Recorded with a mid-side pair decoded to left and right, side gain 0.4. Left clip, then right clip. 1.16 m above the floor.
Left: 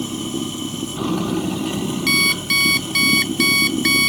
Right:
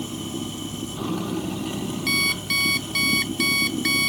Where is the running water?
40° left.